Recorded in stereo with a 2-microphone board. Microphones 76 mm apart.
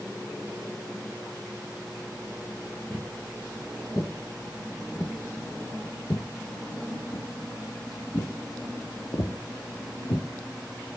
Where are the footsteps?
25° left (ahead or behind), 3.5 m; by 10.3 s 60° left (ahead or behind), 3 m.